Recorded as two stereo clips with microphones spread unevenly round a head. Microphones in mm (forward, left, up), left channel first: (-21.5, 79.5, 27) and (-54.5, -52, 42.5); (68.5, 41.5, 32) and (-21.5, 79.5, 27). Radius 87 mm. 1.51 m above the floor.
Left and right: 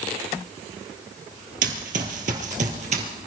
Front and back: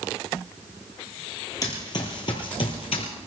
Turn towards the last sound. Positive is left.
turn(degrees=-65)